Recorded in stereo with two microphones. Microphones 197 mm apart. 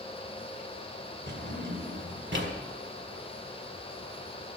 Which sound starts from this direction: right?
A drawer, at 1.3 s.